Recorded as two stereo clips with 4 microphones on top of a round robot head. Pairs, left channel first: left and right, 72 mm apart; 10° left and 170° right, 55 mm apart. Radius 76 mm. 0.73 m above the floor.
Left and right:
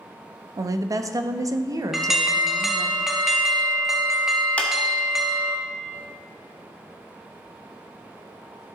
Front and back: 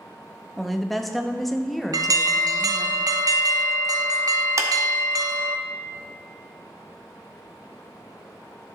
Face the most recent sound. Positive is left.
turn(degrees=165)